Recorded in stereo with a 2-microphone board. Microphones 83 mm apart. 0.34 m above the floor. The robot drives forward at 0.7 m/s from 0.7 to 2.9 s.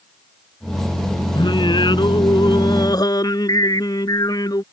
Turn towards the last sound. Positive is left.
turn(degrees=55)  # may be behind; listen again after turning